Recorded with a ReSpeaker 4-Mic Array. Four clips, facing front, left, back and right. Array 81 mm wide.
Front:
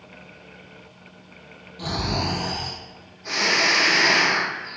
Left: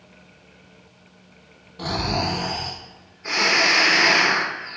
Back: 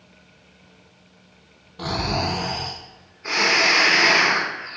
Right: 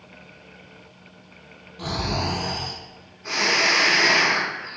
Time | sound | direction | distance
1.8 | snoring | 160° left | 0.7 m